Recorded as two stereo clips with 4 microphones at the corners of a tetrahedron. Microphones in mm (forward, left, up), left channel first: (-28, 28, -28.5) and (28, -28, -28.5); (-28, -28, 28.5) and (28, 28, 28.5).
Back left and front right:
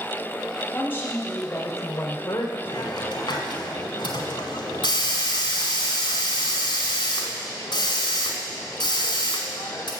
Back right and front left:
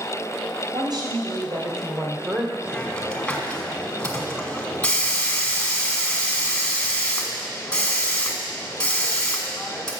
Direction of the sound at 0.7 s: 70° left.